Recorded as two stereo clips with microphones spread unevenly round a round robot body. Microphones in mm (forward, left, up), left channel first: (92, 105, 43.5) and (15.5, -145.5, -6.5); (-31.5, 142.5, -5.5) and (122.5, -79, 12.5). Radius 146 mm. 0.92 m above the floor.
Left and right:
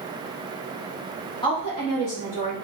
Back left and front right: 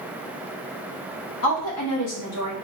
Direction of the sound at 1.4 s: 155° left.